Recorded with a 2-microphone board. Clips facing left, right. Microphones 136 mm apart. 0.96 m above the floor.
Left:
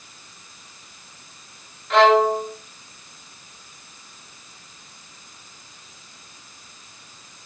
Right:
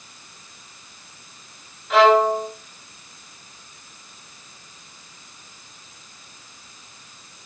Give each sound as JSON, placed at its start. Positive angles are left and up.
{"t": 1.9, "sound": "a violin", "side_deg": -5, "distance_m": 5.0}